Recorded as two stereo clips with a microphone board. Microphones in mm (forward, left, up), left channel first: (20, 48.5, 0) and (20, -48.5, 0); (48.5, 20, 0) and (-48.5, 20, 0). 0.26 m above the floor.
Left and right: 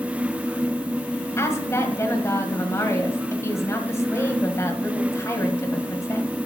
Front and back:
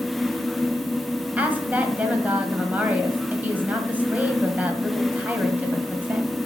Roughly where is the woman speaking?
Behind left.